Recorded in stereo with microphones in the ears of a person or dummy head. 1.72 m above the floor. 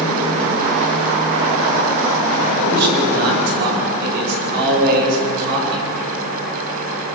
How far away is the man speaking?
About 9.5 m.